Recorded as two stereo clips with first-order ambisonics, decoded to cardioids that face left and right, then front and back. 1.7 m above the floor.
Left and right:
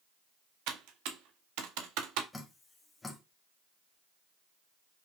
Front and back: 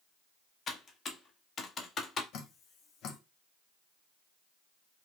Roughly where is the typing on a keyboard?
Right.